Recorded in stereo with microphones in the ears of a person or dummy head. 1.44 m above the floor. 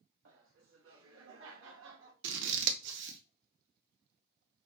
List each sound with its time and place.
0.2 s laughter: 70° right (ahead or behind), 1.1 m; by 2.1 s 75° right (ahead or behind), 1.8 m
2.2 s scissors: 70° right (ahead or behind), 0.8 m